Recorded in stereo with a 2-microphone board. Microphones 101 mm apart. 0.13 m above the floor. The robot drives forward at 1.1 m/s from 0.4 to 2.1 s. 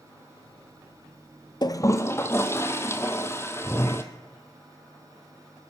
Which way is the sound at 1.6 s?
45° left (ahead or behind).